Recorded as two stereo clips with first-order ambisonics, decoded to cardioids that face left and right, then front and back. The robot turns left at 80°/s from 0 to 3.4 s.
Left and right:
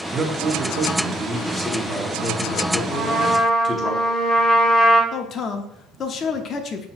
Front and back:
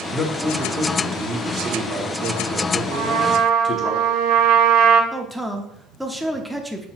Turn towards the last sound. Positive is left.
turn(degrees=95)